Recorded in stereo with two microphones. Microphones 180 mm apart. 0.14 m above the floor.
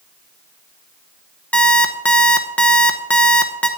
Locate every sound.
1.5 s an alarm clock: 10° left (ahead or behind), 0.8 m